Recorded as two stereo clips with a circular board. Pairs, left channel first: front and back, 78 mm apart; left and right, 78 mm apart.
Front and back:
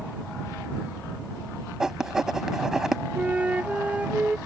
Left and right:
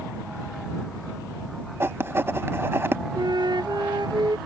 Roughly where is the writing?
Right.